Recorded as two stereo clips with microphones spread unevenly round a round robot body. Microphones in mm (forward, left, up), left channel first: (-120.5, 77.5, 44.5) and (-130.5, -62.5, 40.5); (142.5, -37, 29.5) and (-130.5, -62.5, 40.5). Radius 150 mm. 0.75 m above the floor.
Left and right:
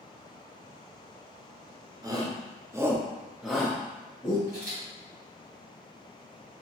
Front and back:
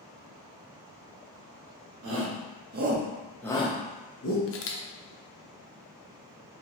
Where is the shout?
155° right, 0.9 m; by 4.4 s 15° left, 0.8 m.